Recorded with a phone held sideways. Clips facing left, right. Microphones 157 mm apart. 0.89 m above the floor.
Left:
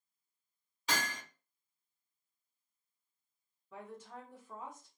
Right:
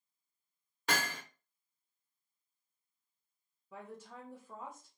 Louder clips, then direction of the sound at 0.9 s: Right 2 dB; 60° right (ahead or behind).